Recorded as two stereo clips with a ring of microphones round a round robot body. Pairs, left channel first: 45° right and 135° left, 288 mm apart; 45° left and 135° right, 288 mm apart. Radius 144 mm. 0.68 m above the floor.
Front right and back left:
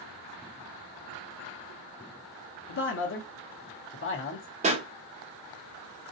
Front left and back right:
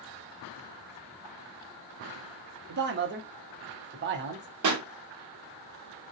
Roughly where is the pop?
Behind.